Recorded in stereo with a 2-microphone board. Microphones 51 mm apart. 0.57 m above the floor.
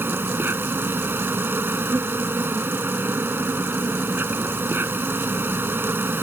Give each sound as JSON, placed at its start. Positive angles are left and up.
{"t": 0.0, "sound": "an insect", "side_deg": -50}